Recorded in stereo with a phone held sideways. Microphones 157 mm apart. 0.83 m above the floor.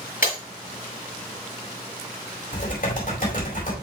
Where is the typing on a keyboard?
60° left (ahead or behind), 4.5 m.